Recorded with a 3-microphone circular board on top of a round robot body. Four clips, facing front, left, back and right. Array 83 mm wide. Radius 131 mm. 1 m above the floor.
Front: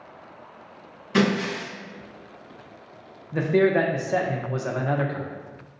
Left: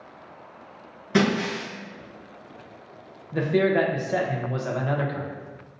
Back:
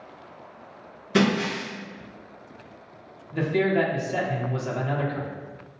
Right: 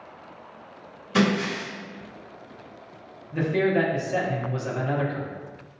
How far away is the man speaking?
About 0.5 m.